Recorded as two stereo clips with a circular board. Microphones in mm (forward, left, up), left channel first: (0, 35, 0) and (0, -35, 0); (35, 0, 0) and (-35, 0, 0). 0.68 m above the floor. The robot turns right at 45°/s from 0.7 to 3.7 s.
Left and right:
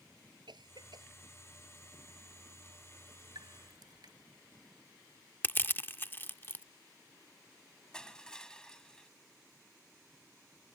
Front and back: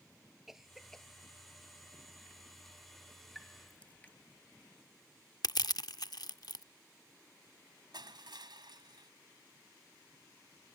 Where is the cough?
95° right; by 1.1 s 75° right.